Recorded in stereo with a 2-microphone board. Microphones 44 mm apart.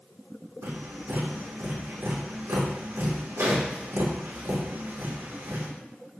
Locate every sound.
0.6 s tapping: 65° right (ahead or behind), 5 m